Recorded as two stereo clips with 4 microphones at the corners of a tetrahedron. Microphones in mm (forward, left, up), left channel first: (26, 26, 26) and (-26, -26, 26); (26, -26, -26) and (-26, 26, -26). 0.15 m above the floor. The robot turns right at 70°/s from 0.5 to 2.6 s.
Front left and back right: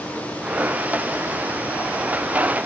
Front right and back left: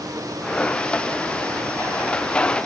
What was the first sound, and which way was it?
Only background noise.